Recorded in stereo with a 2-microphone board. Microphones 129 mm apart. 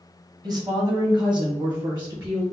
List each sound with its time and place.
0.4 s a woman speaking: 35° right (ahead or behind), 1.2 m